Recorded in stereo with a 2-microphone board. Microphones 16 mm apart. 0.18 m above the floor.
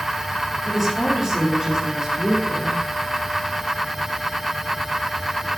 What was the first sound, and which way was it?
A woman speaking, 10° right (ahead or behind).